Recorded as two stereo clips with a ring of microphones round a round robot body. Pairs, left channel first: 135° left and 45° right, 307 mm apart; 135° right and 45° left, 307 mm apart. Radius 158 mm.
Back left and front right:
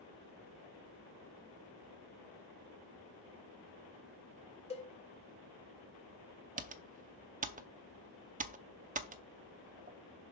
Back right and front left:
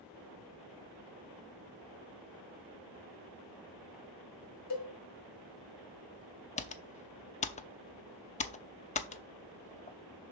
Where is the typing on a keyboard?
85° right, 0.7 m.